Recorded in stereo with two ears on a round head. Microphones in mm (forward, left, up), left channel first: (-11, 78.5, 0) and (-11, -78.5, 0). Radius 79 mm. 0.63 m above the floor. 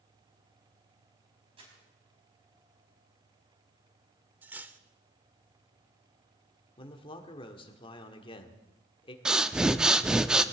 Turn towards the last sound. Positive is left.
turn(degrees=-5)  # may be behind; listen again after turning